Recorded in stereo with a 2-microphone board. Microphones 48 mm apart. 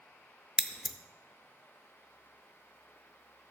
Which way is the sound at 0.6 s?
10° right (ahead or behind).